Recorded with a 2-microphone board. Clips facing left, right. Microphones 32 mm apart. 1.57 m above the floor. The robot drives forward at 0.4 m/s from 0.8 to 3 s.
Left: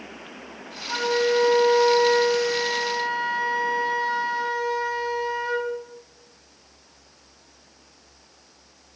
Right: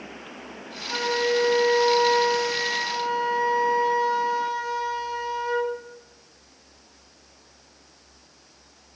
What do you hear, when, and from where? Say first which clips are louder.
0.9 s a flute: left 2 dB; 10° left (ahead or behind), 4.5 m; by 5.7 s 15° left (ahead or behind), 3.5 m